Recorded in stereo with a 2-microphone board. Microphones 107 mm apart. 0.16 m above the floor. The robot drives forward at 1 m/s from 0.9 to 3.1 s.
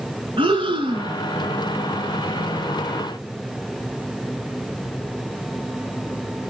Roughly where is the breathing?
Right.